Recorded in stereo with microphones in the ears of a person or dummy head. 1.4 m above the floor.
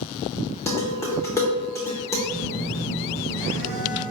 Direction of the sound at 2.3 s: 50° right (ahead or behind).